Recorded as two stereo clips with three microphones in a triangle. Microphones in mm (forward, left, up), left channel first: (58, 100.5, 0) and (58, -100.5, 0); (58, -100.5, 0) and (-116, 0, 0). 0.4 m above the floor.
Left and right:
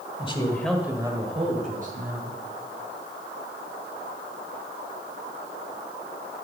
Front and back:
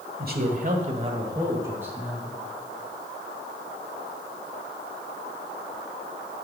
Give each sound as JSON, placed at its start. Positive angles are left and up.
{"t": 0.2, "sound": "a man speaking", "azimuth_deg": 140, "distance_m": 1.6}